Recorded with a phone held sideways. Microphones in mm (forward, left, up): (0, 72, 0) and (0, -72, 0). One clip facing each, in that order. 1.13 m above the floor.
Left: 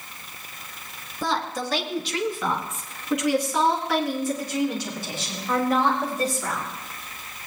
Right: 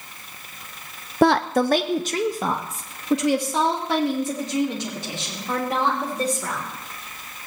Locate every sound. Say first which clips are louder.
1.2 s a woman speaking: right 10 dB; 65° right (ahead or behind), 0.6 m; by 6.6 s 20° right (ahead or behind), 4 m